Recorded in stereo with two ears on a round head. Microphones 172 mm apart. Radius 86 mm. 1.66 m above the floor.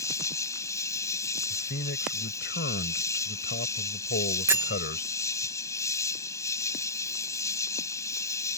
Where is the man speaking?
55° left (ahead or behind).